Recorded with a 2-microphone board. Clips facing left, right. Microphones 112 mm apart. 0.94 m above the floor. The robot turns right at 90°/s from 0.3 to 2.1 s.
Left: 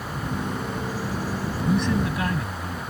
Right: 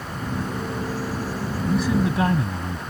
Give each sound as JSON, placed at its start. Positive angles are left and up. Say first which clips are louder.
{"t": 1.7, "sound": "a man speaking", "louder": "right 2 dB", "azimuth_deg": 170}